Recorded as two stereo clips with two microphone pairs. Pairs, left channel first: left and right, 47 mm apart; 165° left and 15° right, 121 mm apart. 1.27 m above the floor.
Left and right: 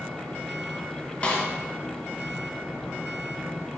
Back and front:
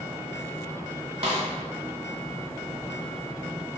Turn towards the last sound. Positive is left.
turn(degrees=25)